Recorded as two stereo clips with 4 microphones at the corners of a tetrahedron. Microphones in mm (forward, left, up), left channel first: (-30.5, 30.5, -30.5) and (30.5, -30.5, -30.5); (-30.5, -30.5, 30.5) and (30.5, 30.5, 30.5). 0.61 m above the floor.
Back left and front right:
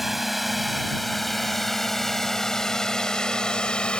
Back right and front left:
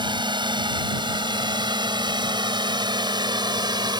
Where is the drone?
45° left; by 4.0 s 60° left.